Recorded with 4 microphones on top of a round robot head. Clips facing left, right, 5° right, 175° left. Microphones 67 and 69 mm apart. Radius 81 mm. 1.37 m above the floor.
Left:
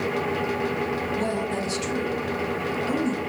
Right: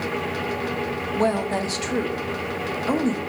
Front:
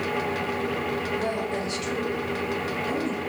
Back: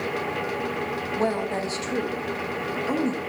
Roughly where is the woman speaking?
Behind right.